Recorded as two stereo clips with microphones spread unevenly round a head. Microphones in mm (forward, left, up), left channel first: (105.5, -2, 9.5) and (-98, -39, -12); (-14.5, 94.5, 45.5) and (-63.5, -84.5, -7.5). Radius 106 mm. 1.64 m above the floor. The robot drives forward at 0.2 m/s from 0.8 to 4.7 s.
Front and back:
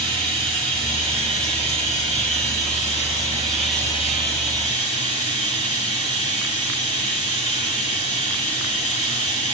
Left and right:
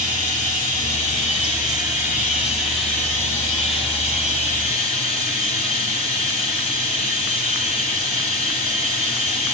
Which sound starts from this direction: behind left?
Running water, at 0.0 s.